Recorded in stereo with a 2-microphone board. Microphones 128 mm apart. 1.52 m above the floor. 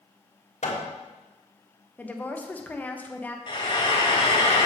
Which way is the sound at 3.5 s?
40° left (ahead or behind).